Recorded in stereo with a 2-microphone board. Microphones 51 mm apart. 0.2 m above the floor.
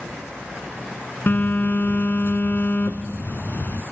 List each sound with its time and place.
1.3 s a phone buzzing: 50° left (ahead or behind), 1.0 m